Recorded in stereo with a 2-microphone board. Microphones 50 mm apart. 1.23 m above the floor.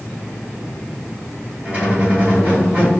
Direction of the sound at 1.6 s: 30° right (ahead or behind).